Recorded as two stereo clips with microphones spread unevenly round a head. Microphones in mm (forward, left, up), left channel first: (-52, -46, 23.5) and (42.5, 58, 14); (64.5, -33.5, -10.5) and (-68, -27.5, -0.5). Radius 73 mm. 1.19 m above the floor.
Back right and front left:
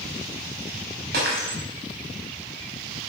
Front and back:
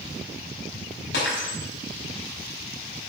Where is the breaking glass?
25° left, 4.5 m.